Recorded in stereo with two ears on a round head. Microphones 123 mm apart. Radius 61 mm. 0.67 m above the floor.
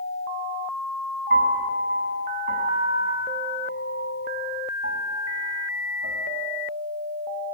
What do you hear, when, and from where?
1.3 s a piano: 60° right (ahead or behind), 6.5 m